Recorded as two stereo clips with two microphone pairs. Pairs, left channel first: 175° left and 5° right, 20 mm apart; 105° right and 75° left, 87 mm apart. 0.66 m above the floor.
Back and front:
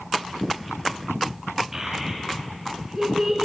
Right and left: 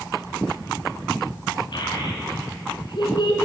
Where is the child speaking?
75° right, 5 m.